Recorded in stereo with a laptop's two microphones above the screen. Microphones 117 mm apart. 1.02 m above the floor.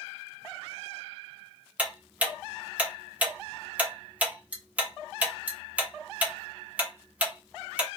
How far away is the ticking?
About 0.6 m.